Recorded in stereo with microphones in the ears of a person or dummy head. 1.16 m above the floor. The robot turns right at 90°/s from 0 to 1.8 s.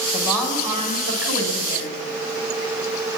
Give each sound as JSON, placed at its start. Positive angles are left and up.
{"t": 0.1, "sound": "a woman speaking", "azimuth_deg": 145, "distance_m": 6.5}